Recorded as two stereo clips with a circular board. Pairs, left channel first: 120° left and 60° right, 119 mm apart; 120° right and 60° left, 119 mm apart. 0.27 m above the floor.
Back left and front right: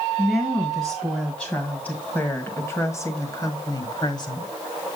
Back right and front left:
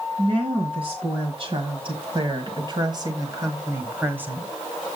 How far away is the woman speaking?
About 2.5 m.